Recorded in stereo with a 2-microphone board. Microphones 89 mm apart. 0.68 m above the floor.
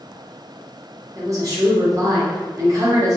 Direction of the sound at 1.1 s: 40° right (ahead or behind).